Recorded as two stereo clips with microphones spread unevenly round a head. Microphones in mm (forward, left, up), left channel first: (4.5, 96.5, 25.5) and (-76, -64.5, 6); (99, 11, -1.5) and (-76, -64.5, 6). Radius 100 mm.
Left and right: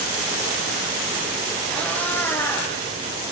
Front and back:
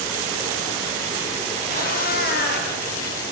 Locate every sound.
1.7 s a cat meowing: 20° right, 5 m; by 2.7 s 10° right, 4 m